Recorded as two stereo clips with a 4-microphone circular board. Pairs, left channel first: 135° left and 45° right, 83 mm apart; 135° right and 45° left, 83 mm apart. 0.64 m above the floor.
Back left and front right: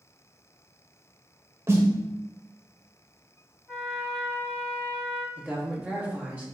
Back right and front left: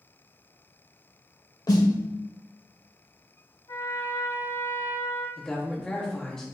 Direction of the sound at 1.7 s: 100° right.